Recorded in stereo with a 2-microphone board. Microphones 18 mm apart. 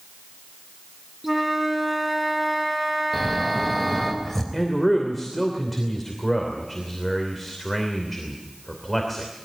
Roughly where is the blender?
I don't hear a blender.